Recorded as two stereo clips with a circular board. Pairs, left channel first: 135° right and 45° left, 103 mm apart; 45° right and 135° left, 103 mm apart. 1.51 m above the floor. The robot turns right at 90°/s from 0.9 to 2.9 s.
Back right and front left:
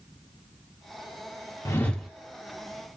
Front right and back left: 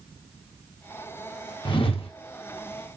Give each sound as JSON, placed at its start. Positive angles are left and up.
{"t": 1.6, "sound": "a whoosh", "azimuth_deg": -80, "distance_m": 0.6}